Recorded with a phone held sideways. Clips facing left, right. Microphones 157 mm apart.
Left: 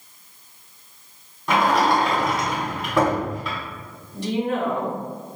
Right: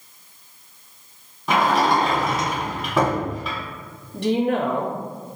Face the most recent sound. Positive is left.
turn(degrees=-65)  # may be behind; listen again after turning